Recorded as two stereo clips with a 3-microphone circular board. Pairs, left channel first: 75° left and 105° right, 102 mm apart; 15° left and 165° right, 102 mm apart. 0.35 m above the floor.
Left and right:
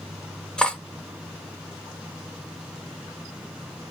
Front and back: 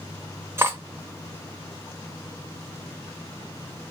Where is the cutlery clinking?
150° left, 0.8 m.